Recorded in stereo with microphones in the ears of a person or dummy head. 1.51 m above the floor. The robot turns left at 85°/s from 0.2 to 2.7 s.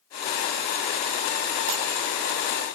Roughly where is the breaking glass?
Right.